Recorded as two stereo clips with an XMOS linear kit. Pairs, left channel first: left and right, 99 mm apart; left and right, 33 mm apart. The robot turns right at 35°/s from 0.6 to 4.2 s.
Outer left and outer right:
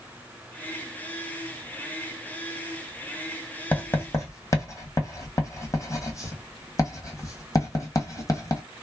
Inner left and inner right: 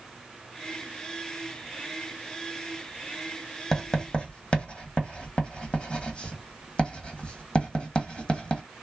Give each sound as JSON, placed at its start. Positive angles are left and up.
{"t": 3.7, "sound": "writing", "side_deg": 15, "distance_m": 1.0}